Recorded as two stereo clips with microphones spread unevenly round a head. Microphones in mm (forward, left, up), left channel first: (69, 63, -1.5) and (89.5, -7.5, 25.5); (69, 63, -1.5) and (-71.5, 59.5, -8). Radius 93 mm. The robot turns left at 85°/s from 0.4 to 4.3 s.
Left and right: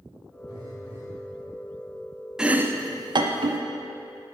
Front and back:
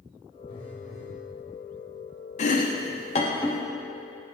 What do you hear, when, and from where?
0.5 s a phone buzzing: 60° right, 1.7 m; by 1.2 s 120° right, 1.7 m
2.4 s chopping: 25° left, 0.5 m; by 3.6 s 80° right, 0.5 m